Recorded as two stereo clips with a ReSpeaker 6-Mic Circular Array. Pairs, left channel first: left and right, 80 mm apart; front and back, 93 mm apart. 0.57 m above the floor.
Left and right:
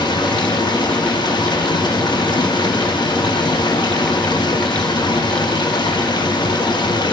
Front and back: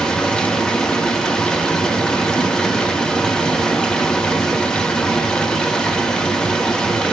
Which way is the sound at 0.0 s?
80° left.